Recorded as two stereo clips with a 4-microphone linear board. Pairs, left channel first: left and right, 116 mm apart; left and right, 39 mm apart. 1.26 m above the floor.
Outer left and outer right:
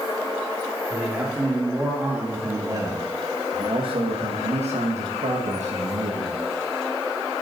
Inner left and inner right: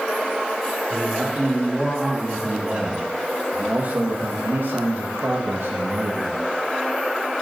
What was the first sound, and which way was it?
A man speaking, 10° right (ahead or behind).